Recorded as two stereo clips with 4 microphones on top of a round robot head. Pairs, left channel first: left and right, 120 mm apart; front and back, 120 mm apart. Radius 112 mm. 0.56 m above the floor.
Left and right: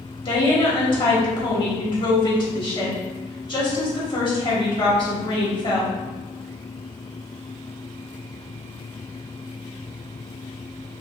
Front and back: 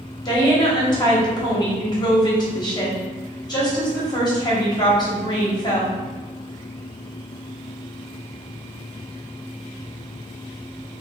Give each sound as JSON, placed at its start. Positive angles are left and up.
{"t": 0.2, "sound": "a woman speaking", "azimuth_deg": 50, "distance_m": 1.3}